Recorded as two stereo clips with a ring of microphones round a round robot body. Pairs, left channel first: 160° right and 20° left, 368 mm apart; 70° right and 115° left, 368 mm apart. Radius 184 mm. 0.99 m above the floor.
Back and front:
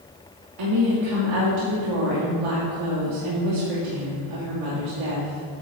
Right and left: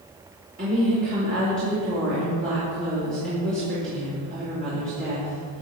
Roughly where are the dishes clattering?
No dishes clattering in this recording.